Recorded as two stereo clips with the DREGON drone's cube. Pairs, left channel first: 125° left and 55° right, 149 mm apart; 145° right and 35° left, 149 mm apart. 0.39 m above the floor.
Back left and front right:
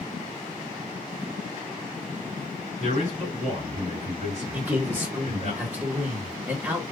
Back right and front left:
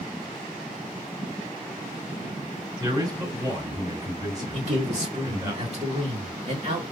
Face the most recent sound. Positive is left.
turn(degrees=15)